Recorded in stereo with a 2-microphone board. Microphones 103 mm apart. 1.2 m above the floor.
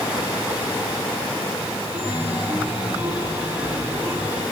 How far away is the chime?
About 3.5 m.